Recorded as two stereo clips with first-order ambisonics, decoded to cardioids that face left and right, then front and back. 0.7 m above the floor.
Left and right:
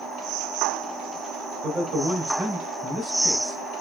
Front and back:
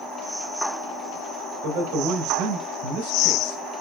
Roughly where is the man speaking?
Behind.